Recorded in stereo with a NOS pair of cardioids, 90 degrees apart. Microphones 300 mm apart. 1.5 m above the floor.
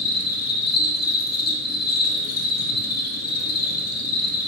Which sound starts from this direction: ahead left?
An insect, at 0.0 s.